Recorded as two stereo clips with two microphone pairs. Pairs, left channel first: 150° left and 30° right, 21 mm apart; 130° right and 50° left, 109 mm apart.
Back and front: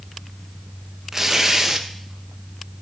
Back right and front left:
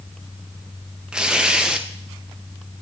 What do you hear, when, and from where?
1.1 s tearing paper: 25° right, 0.5 m